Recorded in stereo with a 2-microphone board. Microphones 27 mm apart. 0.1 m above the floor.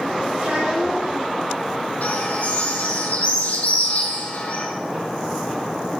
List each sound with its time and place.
0.4 s a child speaking: 50° right (ahead or behind), 8 m
2.0 s a bird: 65° left (ahead or behind), 4.5 m